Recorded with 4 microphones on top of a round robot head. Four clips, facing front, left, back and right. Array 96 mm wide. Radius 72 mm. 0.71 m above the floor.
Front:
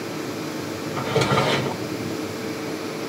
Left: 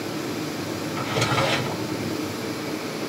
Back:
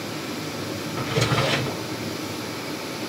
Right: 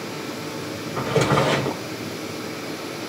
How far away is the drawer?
About 1.2 m.